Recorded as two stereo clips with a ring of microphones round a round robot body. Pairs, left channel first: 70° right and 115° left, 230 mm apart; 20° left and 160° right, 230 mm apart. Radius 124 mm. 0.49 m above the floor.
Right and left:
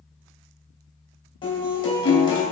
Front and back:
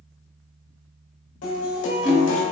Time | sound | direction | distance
1.4 | a guitar | straight ahead | 2.5 m